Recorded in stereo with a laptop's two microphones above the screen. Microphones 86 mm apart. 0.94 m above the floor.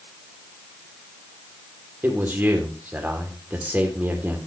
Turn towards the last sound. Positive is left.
turn(degrees=-25)  # may be behind; listen again after turning